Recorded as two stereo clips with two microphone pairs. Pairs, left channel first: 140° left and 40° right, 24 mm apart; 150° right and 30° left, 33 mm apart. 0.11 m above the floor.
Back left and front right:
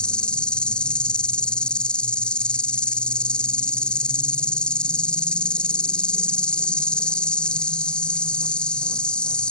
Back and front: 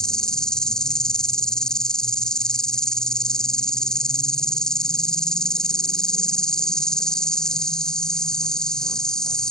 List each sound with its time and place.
0.0 s an insect: 150° left